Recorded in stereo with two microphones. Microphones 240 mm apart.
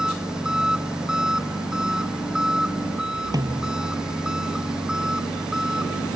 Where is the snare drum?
15° right (ahead or behind).